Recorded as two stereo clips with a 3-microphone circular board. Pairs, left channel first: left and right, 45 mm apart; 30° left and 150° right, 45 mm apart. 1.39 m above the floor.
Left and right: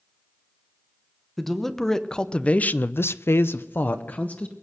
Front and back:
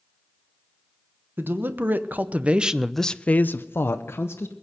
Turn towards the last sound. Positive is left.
turn(degrees=40)